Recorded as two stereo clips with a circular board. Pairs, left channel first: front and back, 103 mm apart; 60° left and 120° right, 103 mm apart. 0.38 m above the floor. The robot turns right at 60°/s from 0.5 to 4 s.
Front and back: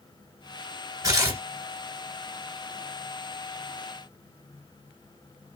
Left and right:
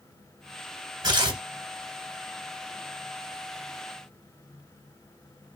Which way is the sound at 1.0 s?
145° right.